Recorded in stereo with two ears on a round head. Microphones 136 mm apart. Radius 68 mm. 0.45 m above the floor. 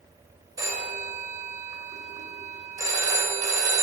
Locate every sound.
0.6 s a phone ringing: 25° right (ahead or behind), 1.1 m